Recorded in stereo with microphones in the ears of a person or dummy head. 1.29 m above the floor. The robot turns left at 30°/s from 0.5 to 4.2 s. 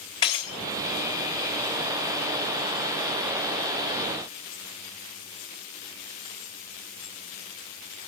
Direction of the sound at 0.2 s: 20° left (ahead or behind).